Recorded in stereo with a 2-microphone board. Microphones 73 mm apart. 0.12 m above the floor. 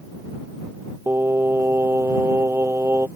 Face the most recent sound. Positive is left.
turn(degrees=-30)  # may be behind; listen again after turning